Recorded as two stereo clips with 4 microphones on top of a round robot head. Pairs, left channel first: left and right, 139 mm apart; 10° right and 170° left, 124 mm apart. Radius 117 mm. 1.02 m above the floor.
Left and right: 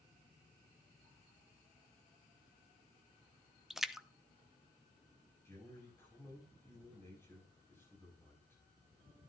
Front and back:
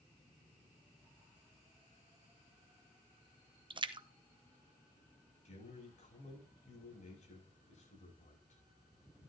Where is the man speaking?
15° left, 6 m.